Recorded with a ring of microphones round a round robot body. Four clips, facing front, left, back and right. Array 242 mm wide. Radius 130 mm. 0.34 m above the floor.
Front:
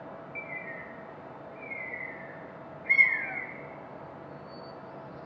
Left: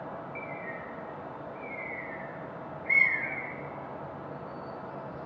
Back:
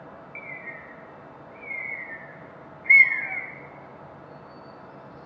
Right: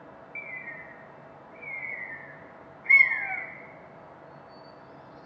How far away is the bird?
About 1.3 m.